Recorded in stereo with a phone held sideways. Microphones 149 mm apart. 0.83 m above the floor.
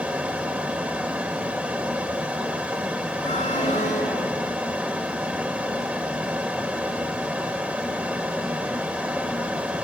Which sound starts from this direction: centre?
A fan, at 0.0 s.